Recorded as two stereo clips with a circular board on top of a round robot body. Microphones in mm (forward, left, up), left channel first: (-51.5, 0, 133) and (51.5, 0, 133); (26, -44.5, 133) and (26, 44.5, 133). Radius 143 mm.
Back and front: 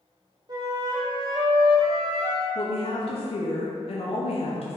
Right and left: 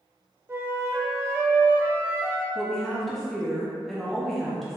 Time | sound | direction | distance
0.5 | a flute | 35° left | 1.1 m
2.5 | a woman speaking | straight behind | 0.7 m